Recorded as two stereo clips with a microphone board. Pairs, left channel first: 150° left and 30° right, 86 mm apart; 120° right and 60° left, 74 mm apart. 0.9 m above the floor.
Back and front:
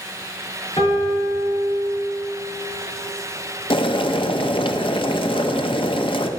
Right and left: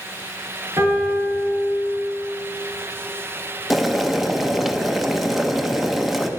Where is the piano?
120° left, 4 m.